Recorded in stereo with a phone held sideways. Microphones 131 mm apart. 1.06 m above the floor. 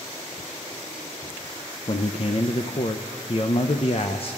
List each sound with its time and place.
1.9 s a man speaking: 45° left (ahead or behind), 0.5 m